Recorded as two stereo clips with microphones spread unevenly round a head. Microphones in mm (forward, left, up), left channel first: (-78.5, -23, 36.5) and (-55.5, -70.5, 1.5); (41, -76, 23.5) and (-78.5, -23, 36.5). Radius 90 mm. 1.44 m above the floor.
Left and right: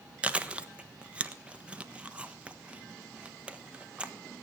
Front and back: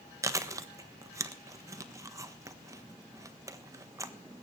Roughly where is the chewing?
Behind right.